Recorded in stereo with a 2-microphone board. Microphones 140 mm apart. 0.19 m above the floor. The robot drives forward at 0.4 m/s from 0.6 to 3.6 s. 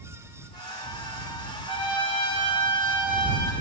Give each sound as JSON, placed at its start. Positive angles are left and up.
{"t": 1.7, "sound": "a trumpet", "side_deg": 50, "distance_m": 1.0}